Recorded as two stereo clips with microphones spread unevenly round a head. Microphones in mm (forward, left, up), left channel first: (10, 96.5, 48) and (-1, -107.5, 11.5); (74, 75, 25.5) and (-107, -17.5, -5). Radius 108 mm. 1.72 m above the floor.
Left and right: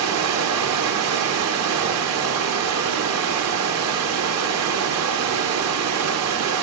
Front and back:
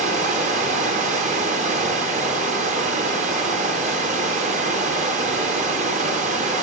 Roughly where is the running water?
Right.